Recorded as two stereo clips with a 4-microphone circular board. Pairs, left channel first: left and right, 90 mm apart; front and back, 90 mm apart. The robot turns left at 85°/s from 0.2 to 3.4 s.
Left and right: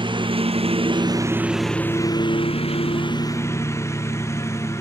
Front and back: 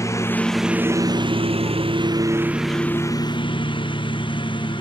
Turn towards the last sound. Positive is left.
turn(degrees=30)